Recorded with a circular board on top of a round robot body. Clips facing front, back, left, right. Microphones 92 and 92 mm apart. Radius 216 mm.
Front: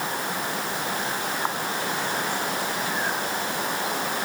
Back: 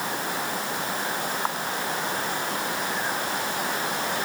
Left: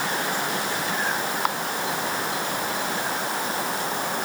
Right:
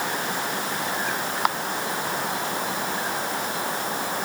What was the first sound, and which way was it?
Only background noise.